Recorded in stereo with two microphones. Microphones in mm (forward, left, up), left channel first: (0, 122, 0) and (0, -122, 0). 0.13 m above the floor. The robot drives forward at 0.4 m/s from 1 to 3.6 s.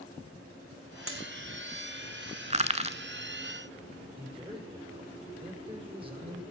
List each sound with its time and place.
1.1 s a dropped coin: 60° right (ahead or behind), 2 m
2.5 s crushing: 30° right (ahead or behind), 0.9 m; by 3.0 s 25° right (ahead or behind), 1.0 m
4.2 s a man speaking: 20° right (ahead or behind), 5.5 m